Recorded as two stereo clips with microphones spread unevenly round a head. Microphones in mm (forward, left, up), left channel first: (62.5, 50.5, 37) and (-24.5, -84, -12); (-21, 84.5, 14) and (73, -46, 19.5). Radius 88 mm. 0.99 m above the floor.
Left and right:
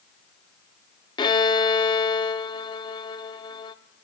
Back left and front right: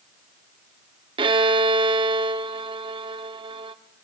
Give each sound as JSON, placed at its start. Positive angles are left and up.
{"t": 1.2, "sound": "a violin", "azimuth_deg": 5, "distance_m": 1.0}